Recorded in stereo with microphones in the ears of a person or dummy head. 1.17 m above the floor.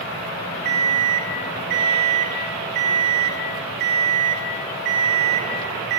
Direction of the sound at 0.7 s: 55° right (ahead or behind).